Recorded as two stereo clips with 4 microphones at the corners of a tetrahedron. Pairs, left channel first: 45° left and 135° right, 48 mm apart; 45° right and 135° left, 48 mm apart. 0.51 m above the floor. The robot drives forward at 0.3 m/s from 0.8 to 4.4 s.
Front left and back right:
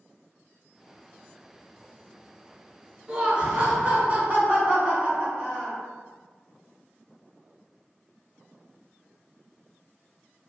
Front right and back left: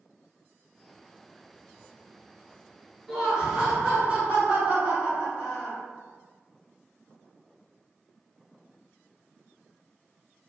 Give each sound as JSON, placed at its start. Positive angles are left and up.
{"t": 3.1, "sound": "laughter", "azimuth_deg": -165, "distance_m": 0.7}